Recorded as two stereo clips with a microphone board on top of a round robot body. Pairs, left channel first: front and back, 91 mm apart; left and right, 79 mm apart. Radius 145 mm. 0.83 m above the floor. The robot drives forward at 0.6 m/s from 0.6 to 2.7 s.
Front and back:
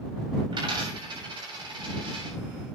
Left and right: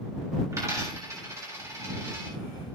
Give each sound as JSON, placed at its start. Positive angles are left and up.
{"t": 0.5, "sound": "a dropped coin", "azimuth_deg": -140, "distance_m": 8.0}